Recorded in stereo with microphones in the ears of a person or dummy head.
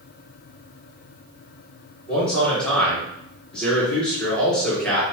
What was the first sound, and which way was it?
A man speaking, 10° left (ahead or behind).